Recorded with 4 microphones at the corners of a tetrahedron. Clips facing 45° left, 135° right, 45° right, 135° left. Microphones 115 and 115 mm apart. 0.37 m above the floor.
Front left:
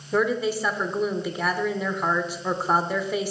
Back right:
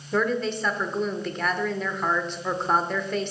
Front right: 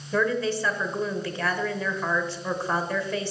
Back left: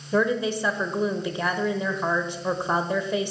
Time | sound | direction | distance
0.1 | a woman speaking | 110° left | 0.8 m